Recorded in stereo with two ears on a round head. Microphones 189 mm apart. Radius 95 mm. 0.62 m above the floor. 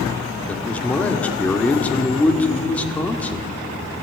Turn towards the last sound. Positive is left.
turn(degrees=5)  # may be behind; listen again after turning